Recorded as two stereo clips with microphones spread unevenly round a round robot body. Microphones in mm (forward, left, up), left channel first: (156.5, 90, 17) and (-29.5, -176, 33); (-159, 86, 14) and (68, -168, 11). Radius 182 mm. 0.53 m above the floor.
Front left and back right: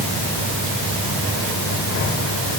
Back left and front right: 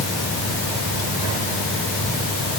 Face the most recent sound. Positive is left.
No sound to turn to.